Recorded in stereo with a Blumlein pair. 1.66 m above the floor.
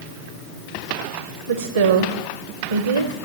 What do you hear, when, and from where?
1.5 s a woman speaking: 70° right, 0.8 m